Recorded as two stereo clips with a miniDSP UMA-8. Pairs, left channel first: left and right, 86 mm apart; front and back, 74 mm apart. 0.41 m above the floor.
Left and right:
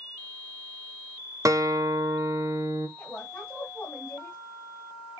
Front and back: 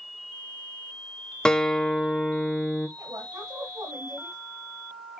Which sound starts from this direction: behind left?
A woman speaking, at 3.0 s.